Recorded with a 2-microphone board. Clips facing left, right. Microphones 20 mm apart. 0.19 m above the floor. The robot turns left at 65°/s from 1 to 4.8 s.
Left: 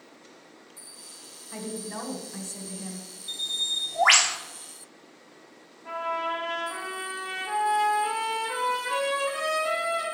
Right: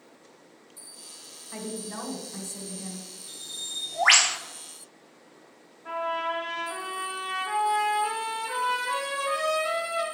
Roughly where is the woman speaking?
Centre.